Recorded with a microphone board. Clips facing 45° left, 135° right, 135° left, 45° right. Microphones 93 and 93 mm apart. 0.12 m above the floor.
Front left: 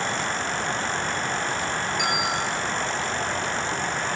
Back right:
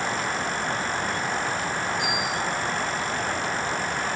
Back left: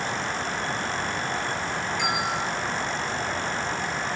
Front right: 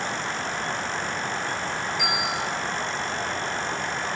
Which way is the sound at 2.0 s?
40° left.